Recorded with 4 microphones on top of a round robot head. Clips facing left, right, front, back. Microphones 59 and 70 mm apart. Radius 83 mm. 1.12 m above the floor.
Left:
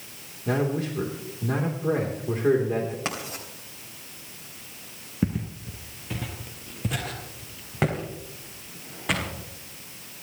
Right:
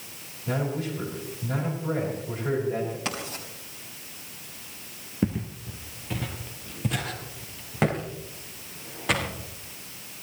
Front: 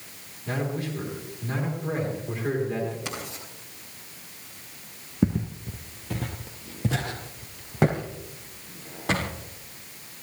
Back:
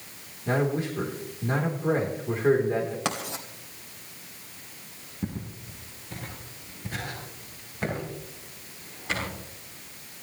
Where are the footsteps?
10° left, 1.4 m; by 9.3 s straight ahead, 4.5 m.